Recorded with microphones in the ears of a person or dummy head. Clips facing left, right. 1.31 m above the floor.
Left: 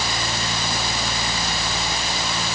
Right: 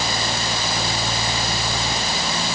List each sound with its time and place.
Only background noise.